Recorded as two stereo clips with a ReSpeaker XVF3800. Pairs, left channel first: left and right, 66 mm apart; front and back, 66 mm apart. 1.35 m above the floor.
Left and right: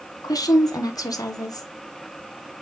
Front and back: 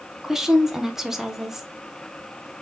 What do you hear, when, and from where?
0.2 s a woman speaking: 95° left, 0.9 m